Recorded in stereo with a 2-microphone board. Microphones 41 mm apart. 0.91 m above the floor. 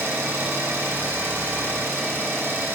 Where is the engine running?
75° right (ahead or behind), 6.5 m.